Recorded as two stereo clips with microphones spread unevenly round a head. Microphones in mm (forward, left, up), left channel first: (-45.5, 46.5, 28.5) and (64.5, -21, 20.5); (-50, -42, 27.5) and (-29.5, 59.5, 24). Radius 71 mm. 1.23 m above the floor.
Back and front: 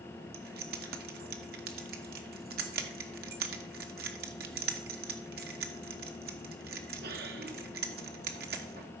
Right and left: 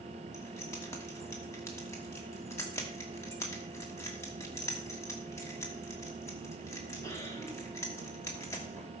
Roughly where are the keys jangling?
Ahead right.